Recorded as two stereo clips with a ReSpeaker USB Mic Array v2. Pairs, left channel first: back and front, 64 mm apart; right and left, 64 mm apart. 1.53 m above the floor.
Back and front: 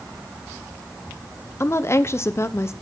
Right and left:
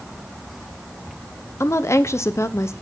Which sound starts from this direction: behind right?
A woman speaking, at 1.6 s.